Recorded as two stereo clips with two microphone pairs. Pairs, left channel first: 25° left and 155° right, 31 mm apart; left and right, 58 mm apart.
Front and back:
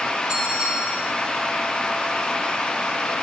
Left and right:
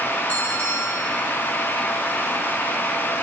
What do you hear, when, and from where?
0.3 s a bell: 155° left, 4 m